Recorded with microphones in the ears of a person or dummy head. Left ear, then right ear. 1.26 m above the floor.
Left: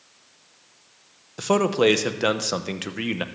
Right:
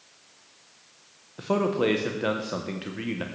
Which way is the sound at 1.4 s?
75° left (ahead or behind).